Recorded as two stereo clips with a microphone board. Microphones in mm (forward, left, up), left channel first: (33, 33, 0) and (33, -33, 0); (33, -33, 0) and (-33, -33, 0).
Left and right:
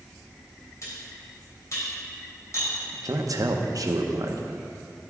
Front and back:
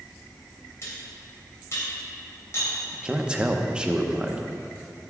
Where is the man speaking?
105° right, 0.8 m.